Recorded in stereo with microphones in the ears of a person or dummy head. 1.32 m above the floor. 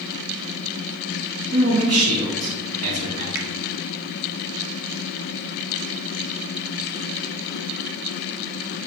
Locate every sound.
1.5 s a man speaking: 70° right (ahead or behind), 3 m
3.4 s a finger snap: 55° right (ahead or behind), 1.0 m